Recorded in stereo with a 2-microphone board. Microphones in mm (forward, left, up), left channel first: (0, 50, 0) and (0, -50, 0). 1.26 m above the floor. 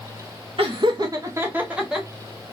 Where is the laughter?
70° right (ahead or behind), 0.5 m; by 2.1 s 5° right (ahead or behind), 1.0 m.